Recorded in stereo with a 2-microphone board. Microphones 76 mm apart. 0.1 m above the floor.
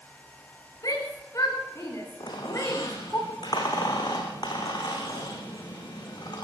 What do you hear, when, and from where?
0.8 s a shout: 50° left (ahead or behind), 9.5 m; by 3.2 s 30° left (ahead or behind), 8 m
2.2 s a squeak: 70° left (ahead or behind), 6 m